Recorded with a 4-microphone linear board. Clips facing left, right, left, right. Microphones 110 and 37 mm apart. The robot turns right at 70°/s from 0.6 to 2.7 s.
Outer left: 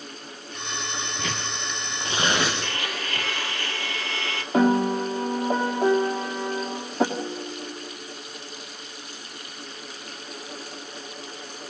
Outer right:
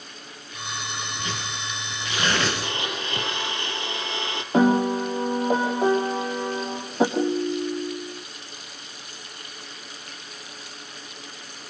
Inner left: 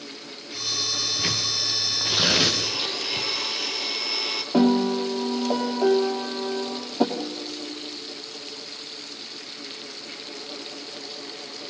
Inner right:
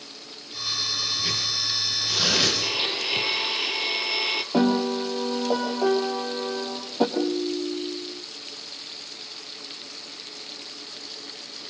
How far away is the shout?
I don't hear a shout.